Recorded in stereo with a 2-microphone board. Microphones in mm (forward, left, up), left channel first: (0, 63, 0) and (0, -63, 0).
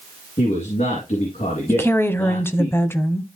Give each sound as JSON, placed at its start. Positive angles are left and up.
{"t": 0.4, "sound": "a man speaking", "side_deg": 70, "distance_m": 3.5}
{"t": 1.7, "sound": "a woman speaking", "side_deg": 20, "distance_m": 1.0}